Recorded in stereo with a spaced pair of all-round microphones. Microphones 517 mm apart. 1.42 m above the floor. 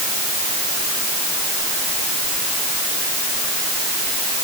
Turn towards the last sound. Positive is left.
No sound to turn to.